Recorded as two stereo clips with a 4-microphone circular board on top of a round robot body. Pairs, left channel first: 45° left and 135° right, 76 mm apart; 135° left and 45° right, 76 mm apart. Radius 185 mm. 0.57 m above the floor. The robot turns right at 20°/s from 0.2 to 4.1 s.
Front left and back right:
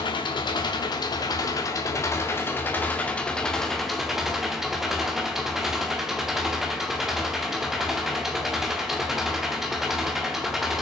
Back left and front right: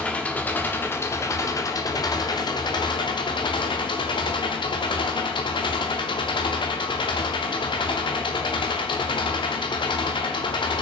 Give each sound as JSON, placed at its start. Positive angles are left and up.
{"t": 0.0, "sound": "an engine running", "azimuth_deg": 60, "distance_m": 1.0}